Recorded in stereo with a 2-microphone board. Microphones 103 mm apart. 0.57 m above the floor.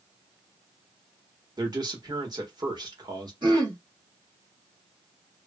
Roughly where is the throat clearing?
Right.